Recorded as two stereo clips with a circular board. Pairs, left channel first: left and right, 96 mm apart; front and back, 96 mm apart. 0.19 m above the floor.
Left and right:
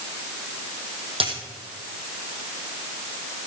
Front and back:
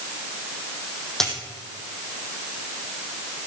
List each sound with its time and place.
1.2 s a dropped coin: 85° right, 3.5 m